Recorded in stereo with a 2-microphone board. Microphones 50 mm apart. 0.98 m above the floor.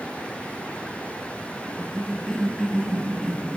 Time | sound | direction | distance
1.6 | a cough | 10° left (ahead or behind) | 5 m